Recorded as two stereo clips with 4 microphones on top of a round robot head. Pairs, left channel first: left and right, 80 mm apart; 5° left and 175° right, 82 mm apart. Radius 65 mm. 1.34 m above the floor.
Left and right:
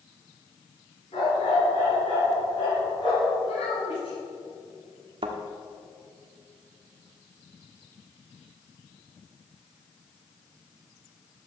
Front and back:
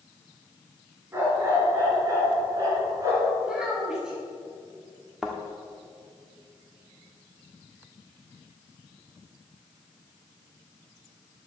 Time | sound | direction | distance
1.1 | a dog barking | 125° left | 5 m
3.4 | a child speaking | 105° left | 5.5 m
5.2 | a thud | 90° right | 1.2 m